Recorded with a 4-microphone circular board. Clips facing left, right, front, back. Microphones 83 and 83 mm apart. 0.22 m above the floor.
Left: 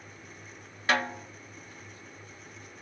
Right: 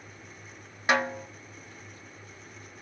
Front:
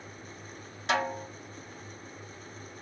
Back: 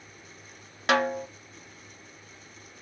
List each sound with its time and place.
0.9 s a snare drum: 160° right, 0.5 m